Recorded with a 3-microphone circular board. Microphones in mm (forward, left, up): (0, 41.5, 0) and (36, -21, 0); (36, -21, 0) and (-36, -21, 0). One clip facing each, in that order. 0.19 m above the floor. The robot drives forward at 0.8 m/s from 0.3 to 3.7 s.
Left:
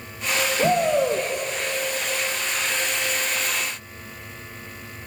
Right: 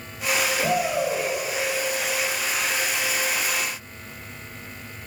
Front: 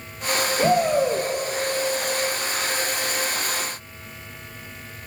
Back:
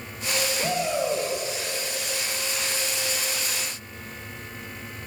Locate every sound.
0.6 s a shout: 60° left, 4 m; by 1.3 s 65° left, 4 m